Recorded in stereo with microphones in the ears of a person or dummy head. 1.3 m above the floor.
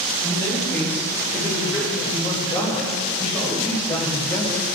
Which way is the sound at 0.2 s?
15° left (ahead or behind).